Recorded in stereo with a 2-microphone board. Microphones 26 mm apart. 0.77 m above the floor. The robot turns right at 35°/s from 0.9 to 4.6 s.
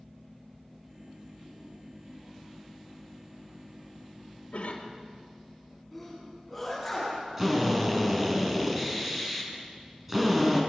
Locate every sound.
4.5 s a cough: 70° left (ahead or behind), 3 m; by 5.0 s 65° left (ahead or behind), 3 m
5.9 s a sneeze: 5° left (ahead or behind), 7 m
7.4 s a drill: 15° right (ahead or behind), 5.5 m